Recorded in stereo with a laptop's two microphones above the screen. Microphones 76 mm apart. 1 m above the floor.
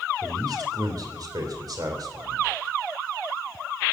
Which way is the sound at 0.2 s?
60° right (ahead or behind).